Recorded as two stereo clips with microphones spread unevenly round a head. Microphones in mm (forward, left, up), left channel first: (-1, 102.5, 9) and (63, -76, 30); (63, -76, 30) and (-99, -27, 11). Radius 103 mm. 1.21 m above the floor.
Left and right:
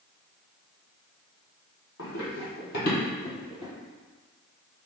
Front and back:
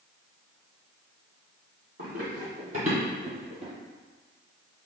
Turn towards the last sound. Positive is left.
turn(degrees=165)